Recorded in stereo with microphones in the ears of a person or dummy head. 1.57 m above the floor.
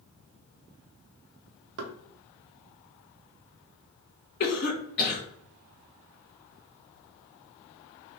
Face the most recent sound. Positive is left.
turn(degrees=50)  # may be behind; listen again after turning